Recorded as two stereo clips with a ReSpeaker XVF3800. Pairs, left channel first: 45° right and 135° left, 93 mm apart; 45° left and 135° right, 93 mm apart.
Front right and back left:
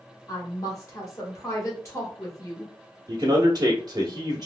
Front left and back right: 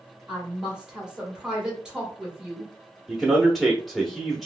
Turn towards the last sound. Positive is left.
turn(degrees=135)